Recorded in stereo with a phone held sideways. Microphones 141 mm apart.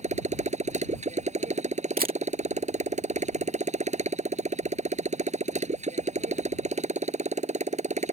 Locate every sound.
0.0 s a motorcycle: 50° right (ahead or behind)
2.0 s a camera shutter: 85° right